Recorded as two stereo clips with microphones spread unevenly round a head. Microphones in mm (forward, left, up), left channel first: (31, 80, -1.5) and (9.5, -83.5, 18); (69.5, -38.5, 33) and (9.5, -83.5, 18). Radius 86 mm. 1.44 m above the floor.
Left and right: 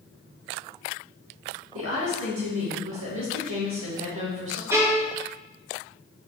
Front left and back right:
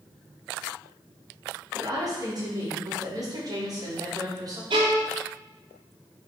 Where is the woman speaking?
105° right, 3 m.